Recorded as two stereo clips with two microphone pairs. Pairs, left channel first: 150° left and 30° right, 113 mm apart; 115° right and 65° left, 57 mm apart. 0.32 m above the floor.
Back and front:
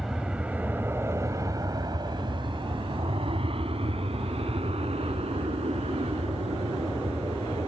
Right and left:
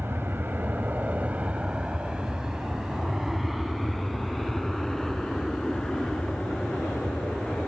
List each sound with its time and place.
0.0 s an aircraft: 55° left; by 7.7 s 40° right